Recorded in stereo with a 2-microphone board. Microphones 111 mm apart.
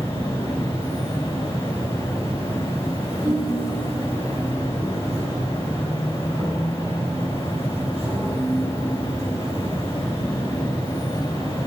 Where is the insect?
55° right (ahead or behind), 3 m.